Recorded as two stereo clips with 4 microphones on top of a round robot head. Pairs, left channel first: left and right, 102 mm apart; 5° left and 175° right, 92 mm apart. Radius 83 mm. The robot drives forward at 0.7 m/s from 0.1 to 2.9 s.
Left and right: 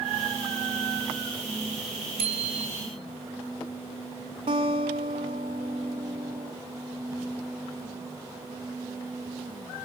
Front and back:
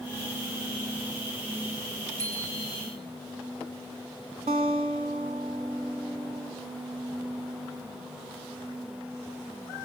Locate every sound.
2.2 s a bicycle bell: 110° right, 4.5 m; by 2.8 s 115° right, 5 m
4.5 s a guitar: 135° right, 2.5 m